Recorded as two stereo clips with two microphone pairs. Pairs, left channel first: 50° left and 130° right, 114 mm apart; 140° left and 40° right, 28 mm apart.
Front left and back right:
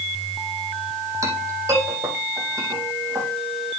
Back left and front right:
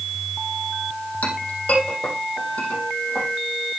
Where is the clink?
170° left, 4.5 m.